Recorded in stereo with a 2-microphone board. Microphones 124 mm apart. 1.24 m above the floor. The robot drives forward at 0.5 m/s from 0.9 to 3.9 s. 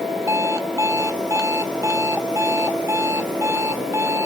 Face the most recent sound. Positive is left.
turn(degrees=-25)  # may be behind; listen again after turning